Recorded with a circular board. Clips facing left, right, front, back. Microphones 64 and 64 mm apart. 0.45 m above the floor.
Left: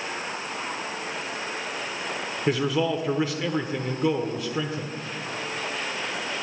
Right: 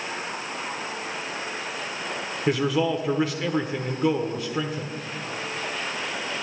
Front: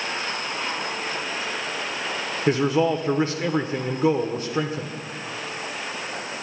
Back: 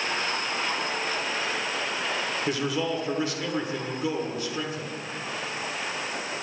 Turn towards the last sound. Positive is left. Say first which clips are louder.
# right 1 dB, front 10 dB
turn(degrees=-5)